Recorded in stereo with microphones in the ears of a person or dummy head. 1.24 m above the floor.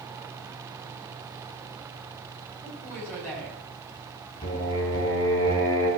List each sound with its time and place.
2.6 s a woman speaking: 15° left (ahead or behind), 6 m
4.4 s singing: 25° left (ahead or behind), 5 m